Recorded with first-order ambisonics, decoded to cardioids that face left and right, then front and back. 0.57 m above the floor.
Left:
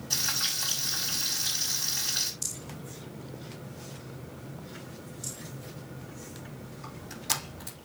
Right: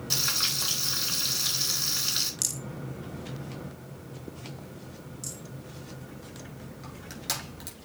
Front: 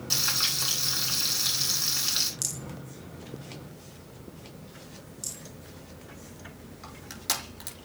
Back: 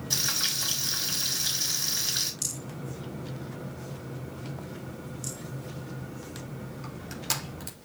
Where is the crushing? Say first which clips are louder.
Left 1 dB, front 1 dB; 25° right, 5.5 m.